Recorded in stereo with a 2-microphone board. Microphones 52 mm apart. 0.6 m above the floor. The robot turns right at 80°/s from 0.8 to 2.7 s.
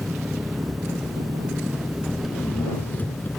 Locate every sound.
0.0 s an engine running: 115° right; by 3.4 s 35° left